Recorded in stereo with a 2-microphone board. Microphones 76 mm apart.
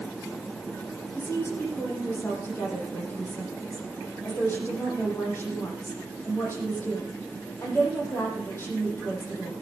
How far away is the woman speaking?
About 7 m.